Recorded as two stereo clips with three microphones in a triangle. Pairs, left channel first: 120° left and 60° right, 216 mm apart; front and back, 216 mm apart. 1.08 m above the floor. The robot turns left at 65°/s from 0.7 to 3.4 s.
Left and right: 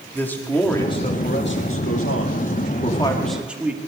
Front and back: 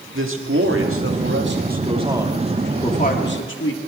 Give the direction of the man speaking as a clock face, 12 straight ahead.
5 o'clock.